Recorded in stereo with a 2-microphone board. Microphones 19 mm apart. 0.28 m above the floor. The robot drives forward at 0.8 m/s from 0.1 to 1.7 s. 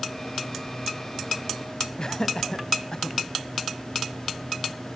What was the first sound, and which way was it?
Laughter, 30° left (ahead or behind).